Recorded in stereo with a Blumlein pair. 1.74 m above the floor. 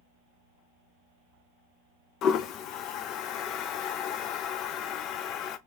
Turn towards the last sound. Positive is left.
turn(degrees=35)